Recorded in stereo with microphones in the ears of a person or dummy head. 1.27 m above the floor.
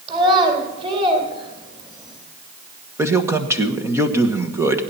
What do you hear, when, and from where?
0.1 s a child speaking: 30° right (ahead or behind), 2.5 m
3.0 s a man speaking: 10° right (ahead or behind), 1.2 m